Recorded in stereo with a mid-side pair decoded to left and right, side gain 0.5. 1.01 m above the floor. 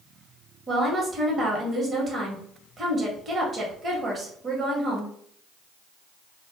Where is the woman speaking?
40° right, 1.2 m.